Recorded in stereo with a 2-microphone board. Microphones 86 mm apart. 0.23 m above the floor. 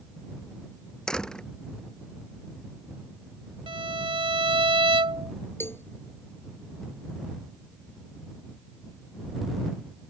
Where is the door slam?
10° left (ahead or behind).